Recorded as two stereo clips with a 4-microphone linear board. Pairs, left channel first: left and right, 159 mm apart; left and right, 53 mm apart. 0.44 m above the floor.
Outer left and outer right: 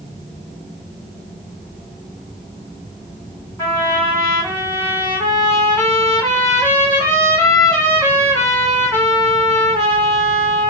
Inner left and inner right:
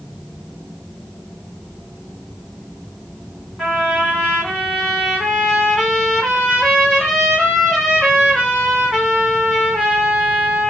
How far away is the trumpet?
About 1.5 m.